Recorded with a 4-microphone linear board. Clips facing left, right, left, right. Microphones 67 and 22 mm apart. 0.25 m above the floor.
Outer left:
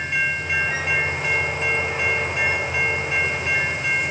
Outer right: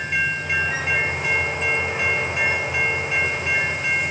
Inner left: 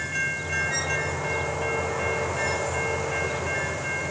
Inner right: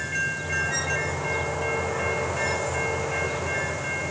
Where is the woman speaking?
I don't hear a woman speaking.